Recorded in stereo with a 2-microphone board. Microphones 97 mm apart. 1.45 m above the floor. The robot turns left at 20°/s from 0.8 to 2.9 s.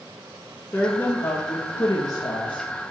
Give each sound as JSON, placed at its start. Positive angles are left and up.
{"t": 0.7, "sound": "a woman speaking", "azimuth_deg": 160, "distance_m": 0.6}